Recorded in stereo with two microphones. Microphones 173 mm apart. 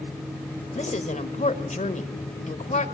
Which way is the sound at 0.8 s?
45° left (ahead or behind).